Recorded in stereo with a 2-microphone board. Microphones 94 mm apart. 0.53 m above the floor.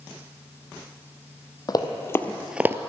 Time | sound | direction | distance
1.7 | running footsteps | 45° left (ahead or behind) | 1.0 m